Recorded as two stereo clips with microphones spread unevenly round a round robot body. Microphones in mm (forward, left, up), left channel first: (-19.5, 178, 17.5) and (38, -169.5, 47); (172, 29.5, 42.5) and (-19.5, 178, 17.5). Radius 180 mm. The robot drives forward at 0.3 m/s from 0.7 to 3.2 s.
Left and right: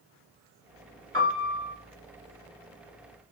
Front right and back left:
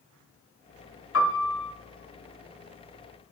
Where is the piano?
10° right, 1.3 m; by 1.7 s 15° right, 1.2 m.